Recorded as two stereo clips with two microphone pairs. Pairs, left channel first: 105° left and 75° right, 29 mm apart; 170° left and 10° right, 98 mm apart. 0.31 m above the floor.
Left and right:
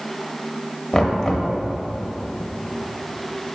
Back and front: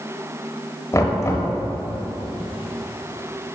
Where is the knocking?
145° left, 1.1 m.